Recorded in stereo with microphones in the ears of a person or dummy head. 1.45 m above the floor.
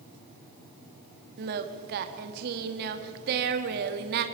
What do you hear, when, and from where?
1.4 s singing: 55° right (ahead or behind), 1.6 m